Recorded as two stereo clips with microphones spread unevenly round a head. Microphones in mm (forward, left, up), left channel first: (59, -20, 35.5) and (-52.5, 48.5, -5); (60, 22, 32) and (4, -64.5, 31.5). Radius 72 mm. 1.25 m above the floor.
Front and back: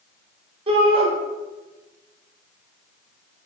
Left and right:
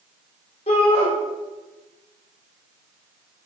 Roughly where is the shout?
Left.